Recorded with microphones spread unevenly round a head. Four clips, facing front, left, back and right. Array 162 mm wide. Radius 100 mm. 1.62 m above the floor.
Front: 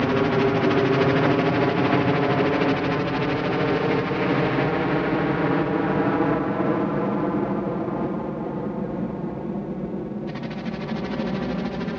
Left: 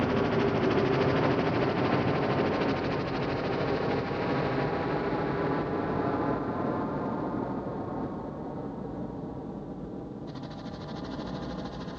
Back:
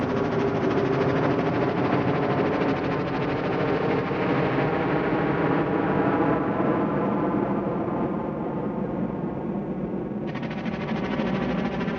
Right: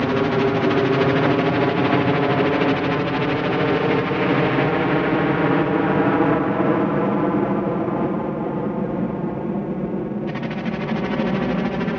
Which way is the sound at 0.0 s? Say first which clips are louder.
Right 7 dB, front 4 dB; 60° right.